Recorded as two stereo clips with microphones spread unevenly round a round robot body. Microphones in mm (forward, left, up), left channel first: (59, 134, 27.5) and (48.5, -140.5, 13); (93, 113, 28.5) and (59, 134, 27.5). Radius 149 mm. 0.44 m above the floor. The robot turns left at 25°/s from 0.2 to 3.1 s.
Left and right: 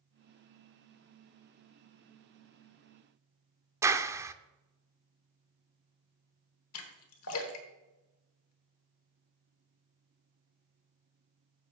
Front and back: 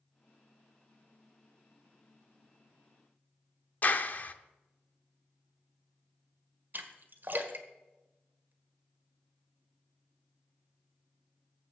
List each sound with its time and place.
3.8 s a clap: 20° right, 0.6 m
6.7 s a splash: 125° left, 1.4 m